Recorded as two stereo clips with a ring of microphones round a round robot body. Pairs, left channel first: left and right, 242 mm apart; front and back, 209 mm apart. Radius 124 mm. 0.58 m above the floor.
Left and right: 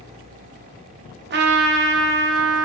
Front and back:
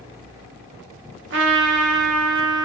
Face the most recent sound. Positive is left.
turn(degrees=-140)